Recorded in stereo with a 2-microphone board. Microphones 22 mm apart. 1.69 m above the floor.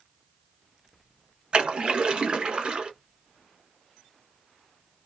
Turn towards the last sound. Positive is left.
turn(degrees=-45)  # may be behind; listen again after turning